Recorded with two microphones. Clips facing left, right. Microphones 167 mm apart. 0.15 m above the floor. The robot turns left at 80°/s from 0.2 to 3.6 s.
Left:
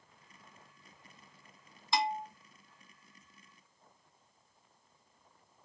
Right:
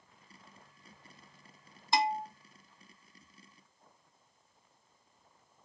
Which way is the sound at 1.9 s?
45° right (ahead or behind).